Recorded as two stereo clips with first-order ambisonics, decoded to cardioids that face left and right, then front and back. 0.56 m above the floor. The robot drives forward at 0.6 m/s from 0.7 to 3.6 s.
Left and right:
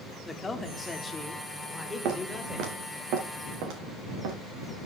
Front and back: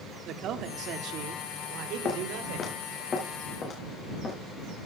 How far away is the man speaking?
About 1.1 m.